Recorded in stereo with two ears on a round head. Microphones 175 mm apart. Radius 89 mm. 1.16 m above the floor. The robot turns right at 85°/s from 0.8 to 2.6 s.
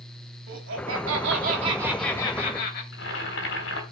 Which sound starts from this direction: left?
Boiling, at 2.9 s.